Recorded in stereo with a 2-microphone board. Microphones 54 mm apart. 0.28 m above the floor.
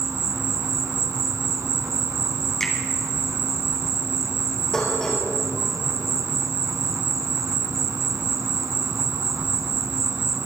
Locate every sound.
0.0 s an insect: 75° right (ahead or behind), 0.8 m
2.6 s a finger snap: 10° left (ahead or behind), 2.5 m
4.7 s dishes clattering: 10° left (ahead or behind), 4 m